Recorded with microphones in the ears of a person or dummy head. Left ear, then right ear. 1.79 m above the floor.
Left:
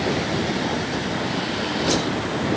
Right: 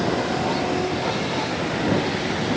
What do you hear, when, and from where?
Only background noise.